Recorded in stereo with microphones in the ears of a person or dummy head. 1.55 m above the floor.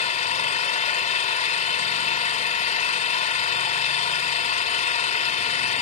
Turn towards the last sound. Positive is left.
turn(degrees=40)  # may be behind; listen again after turning